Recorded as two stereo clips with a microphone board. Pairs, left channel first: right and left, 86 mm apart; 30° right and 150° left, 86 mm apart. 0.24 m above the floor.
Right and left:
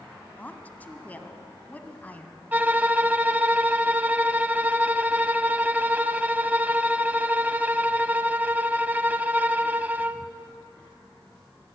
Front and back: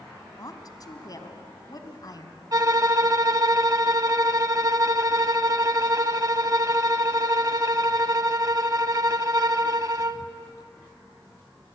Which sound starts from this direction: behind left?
A violin, at 2.5 s.